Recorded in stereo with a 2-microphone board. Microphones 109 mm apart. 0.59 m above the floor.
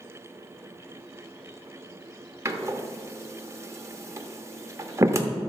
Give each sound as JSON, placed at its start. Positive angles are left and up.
{"t": 2.5, "sound": "a door slam", "side_deg": -25, "distance_m": 0.8}